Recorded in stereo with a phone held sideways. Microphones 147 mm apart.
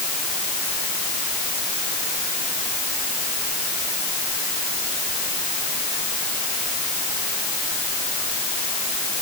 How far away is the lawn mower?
No lawn mower in this recording.